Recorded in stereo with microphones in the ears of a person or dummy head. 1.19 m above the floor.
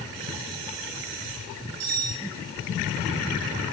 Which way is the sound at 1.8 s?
85° right.